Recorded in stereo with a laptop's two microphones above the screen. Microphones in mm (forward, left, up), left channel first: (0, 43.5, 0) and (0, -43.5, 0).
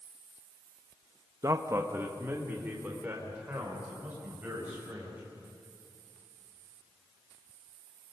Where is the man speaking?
40° right (ahead or behind), 0.7 m; by 5.2 s 15° right (ahead or behind), 5.5 m.